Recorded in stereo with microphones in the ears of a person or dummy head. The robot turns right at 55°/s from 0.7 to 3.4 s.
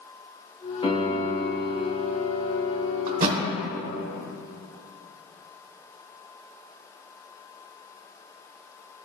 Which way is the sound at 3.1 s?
55° right (ahead or behind).